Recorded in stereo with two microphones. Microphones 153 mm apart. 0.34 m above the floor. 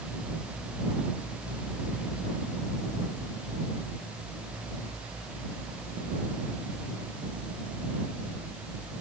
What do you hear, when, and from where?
Only background noise.